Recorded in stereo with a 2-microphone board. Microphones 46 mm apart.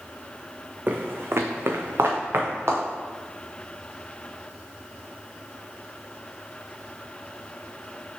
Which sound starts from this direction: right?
Footsteps, at 0.9 s.